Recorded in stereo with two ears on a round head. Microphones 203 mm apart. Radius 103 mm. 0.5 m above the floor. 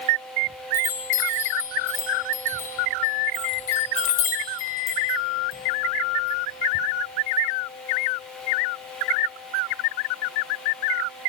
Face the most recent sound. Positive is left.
turn(degrees=30)  # may be behind; listen again after turning